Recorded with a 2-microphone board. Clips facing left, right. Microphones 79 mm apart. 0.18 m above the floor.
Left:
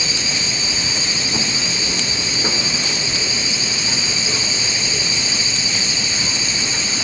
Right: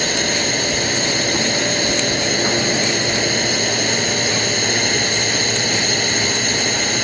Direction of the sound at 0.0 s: 55° right (ahead or behind).